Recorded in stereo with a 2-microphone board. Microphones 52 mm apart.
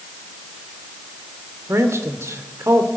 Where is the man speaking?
65° right (ahead or behind), 1.9 m.